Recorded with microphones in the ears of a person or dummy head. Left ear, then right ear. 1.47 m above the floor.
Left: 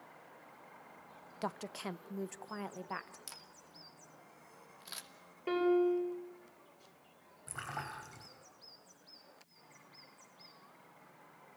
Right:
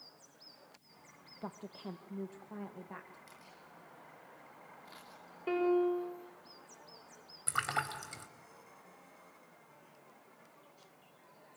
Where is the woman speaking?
75° left (ahead or behind), 0.8 m; by 3.2 s 45° left (ahead or behind), 1.6 m.